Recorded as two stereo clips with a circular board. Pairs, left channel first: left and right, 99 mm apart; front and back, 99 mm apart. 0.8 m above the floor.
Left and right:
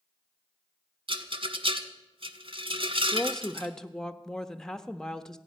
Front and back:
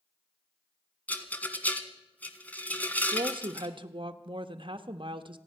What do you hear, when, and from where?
1.1 s a rattle: 75° right, 1.4 m
3.1 s a woman speaking: 175° left, 0.9 m